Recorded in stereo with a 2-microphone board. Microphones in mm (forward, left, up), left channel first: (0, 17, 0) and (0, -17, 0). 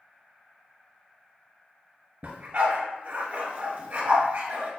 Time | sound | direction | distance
2.2 | a dog barking | 45° right (ahead or behind) | 0.7 m